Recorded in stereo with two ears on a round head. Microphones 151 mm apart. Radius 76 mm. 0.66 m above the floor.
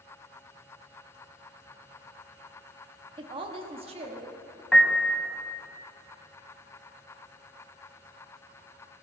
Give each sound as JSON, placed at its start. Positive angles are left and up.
{"t": 3.2, "sound": "a woman speaking", "side_deg": -25, "distance_m": 0.9}
{"t": 4.7, "sound": "a piano", "side_deg": 5, "distance_m": 1.0}